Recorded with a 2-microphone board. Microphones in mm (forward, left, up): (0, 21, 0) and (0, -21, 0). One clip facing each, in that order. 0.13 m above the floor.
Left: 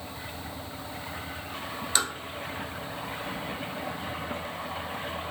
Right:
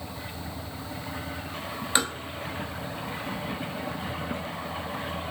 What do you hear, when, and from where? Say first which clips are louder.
1.9 s tapping: right 3 dB; 25° right (ahead or behind), 0.9 m